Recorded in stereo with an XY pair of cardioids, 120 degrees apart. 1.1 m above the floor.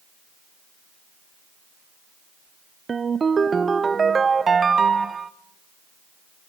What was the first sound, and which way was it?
A ringtone, 25° right.